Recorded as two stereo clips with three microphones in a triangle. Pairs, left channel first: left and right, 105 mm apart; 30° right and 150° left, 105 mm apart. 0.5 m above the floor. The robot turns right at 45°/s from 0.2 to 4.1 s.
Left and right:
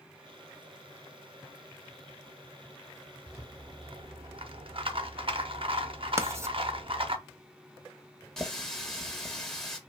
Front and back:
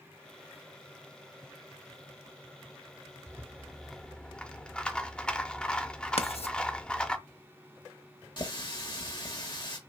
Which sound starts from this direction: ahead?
A running tap, at 8.4 s.